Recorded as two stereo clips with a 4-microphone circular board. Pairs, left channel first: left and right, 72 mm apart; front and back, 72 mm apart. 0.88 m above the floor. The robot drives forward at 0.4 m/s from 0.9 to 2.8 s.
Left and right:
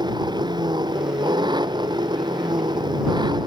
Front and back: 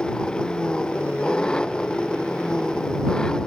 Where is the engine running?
80° right.